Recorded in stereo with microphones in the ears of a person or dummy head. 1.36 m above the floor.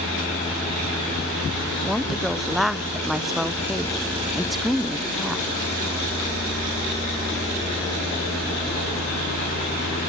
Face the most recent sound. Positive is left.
turn(degrees=-10)  # may be behind; listen again after turning